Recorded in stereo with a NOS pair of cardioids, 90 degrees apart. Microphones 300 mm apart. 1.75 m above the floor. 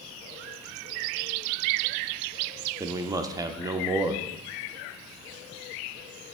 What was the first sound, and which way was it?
A man speaking, 10° right.